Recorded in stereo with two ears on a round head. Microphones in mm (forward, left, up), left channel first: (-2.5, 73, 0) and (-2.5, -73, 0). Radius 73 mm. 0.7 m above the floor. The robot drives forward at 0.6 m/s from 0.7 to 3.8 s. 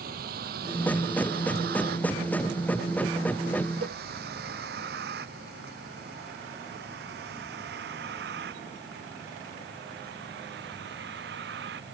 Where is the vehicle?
60° right (ahead or behind); by 11.9 s 75° right (ahead or behind).